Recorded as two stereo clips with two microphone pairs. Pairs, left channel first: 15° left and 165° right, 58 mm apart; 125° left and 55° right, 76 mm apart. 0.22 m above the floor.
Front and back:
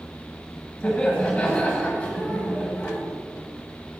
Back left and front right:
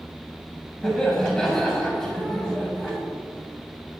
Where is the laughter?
60° left, 1.1 m.